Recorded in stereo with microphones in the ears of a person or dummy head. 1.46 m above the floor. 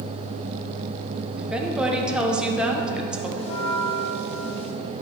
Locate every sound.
1.4 s a woman speaking: 5° right (ahead or behind), 1.0 m
3.4 s a bell: 35° left (ahead or behind), 1.3 m